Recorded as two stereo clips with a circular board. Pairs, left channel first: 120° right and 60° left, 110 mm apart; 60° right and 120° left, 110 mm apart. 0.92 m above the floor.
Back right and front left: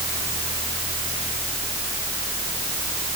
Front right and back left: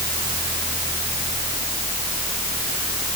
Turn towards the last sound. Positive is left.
No sound to turn to.